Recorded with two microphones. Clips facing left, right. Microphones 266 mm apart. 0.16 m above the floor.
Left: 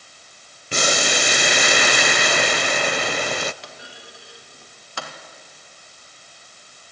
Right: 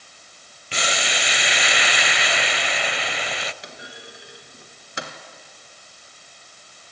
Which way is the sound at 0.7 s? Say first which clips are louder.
Left 6 dB; 50° left (ahead or behind).